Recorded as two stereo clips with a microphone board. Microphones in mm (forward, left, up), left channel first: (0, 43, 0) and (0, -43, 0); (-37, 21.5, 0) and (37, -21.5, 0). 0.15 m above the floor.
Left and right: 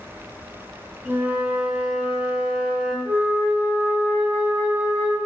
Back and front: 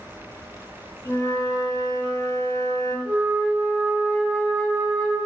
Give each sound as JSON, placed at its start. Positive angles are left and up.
{"t": 1.1, "sound": "a flute", "azimuth_deg": -160, "distance_m": 0.5}
{"t": 3.0, "sound": "a flute", "azimuth_deg": 105, "distance_m": 1.9}